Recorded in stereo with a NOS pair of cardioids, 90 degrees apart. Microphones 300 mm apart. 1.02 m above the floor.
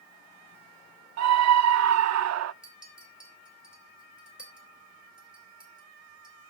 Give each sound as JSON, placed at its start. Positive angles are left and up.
{"t": 1.2, "sound": "a scream", "azimuth_deg": -60, "distance_m": 0.8}
{"t": 2.6, "sound": "a clink", "azimuth_deg": -5, "distance_m": 4.0}